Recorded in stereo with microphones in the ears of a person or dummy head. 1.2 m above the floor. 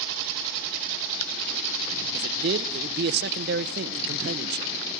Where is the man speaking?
50° right (ahead or behind), 0.6 m.